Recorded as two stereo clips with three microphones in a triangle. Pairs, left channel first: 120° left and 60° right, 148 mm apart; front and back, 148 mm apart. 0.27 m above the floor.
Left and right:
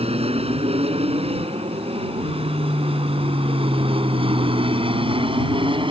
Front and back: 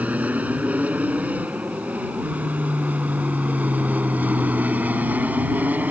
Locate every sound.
0.0 s an aircraft: 100° right; by 5.9 s 105° right